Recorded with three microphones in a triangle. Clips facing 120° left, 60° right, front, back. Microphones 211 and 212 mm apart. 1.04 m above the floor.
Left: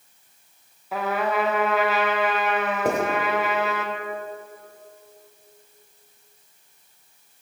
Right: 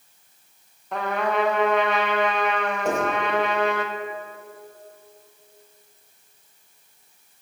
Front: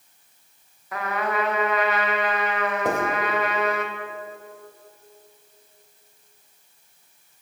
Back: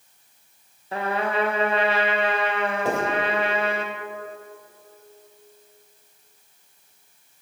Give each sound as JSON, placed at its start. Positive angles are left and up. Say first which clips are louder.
{"t": 0.9, "sound": "a trumpet", "louder": "even, back 2 dB", "azimuth_deg": -160, "distance_m": 0.7}
{"t": 2.9, "sound": "writing", "louder": "left 1 dB, front 1 dB", "azimuth_deg": 70, "distance_m": 1.3}